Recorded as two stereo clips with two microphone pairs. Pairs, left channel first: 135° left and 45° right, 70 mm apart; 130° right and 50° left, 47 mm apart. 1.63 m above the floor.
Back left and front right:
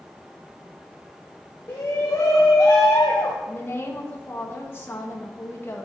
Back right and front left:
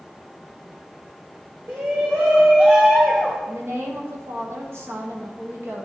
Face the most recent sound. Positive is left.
turn(degrees=75)